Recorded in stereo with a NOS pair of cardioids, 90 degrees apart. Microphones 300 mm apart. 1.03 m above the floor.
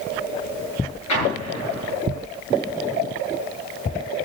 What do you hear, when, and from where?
1.1 s an explosion: 70° left, 6.5 m